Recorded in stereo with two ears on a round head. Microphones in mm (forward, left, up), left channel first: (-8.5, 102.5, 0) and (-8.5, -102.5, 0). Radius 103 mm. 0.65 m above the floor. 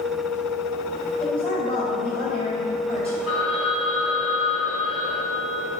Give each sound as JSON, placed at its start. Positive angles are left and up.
{"t": 1.2, "sound": "a woman speaking", "side_deg": 30, "distance_m": 3.0}
{"t": 3.3, "sound": "a phone ringing", "side_deg": 85, "distance_m": 4.0}